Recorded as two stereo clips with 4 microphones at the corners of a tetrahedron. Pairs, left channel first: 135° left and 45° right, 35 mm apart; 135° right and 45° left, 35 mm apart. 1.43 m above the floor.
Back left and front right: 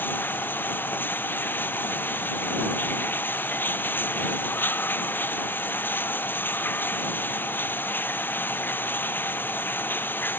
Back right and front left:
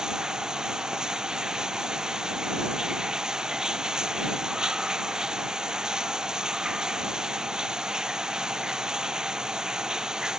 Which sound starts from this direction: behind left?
Running water, at 0.0 s.